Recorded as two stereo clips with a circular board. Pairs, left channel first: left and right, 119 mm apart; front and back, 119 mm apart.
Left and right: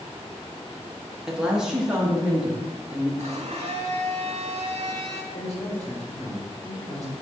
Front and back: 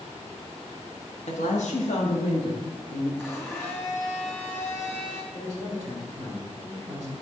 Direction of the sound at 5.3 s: 85° left.